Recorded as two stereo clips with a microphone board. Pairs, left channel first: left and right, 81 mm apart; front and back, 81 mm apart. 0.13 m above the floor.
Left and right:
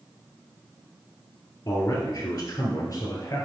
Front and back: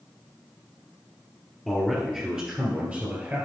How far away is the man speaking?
About 2 m.